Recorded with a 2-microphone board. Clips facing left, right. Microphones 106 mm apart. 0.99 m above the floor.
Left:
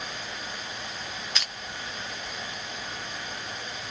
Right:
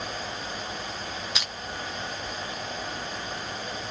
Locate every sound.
1.4 s crushing: 10° right (ahead or behind), 1.1 m